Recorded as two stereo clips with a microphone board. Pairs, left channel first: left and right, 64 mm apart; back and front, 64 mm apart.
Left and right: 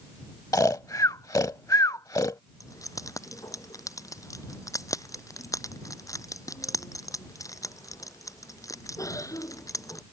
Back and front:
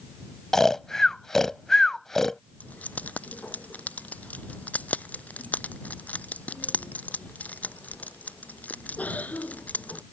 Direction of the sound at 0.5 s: 100° left.